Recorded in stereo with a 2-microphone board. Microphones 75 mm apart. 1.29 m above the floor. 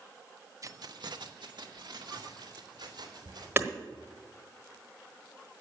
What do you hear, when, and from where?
0.6 s keys jangling: 45° right (ahead or behind), 0.6 m; by 3.5 s 70° right (ahead or behind), 3.5 m
3.6 s hammering: 30° right (ahead or behind), 1.1 m